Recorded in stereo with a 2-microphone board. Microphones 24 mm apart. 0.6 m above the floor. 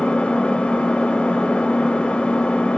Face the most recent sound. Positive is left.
turn(degrees=55)  # may be behind; listen again after turning